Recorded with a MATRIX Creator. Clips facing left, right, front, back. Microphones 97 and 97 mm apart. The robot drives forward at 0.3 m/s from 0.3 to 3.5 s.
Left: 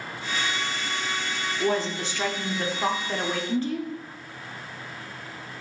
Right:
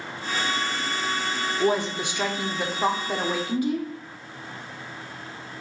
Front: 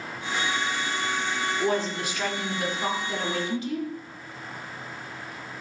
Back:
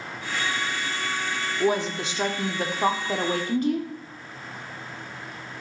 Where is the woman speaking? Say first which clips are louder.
Right 2 dB, back 4 dB; 130° right, 0.7 m; by 3.9 s 165° right, 1.0 m.